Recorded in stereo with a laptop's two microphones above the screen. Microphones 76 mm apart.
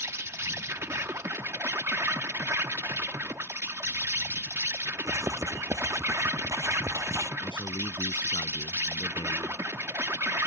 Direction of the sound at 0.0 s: 35° right (ahead or behind).